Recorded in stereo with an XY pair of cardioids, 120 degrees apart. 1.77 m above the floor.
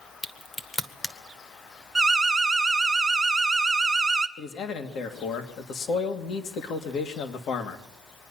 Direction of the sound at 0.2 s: 20° left.